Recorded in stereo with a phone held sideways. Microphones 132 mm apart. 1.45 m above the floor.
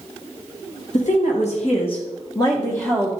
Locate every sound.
0.9 s a woman speaking: 65° left (ahead or behind), 1.4 m; by 3.1 s 10° left (ahead or behind), 1.1 m